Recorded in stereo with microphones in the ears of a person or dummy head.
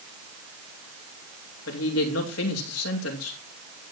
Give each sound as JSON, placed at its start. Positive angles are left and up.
{"t": 1.7, "sound": "a woman speaking", "side_deg": 85, "distance_m": 3.0}